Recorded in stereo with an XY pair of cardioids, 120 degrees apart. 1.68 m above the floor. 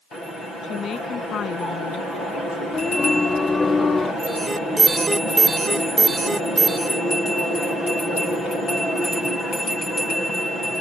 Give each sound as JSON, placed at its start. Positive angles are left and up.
{"t": 0.6, "sound": "a woman speaking", "azimuth_deg": 45}
{"t": 2.7, "sound": "singing", "azimuth_deg": 25}
{"t": 4.2, "sound": "an alarm", "azimuth_deg": -20}